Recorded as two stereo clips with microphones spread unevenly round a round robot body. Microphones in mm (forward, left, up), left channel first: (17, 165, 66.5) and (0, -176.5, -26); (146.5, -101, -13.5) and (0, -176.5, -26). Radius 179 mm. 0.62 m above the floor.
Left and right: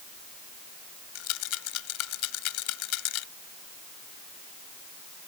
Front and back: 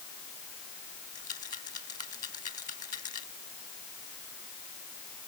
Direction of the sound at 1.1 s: 100° left.